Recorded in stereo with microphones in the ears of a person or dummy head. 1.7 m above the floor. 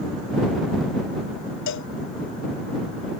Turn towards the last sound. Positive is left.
turn(degrees=65)  # may be behind; listen again after turning